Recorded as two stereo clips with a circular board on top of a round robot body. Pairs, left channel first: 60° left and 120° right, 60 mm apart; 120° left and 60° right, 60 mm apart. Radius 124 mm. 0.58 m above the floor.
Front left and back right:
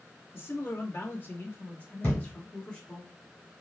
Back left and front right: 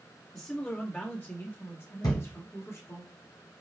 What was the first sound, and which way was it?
A man speaking, 55° left.